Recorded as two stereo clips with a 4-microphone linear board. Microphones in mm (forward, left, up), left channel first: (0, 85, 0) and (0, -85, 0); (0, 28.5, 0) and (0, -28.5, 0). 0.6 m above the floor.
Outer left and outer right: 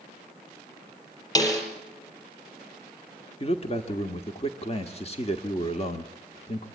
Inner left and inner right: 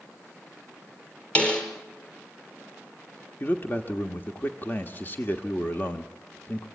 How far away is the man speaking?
About 1.4 m.